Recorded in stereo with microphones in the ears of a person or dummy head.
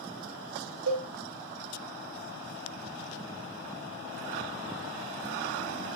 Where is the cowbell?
80° right, 0.6 m.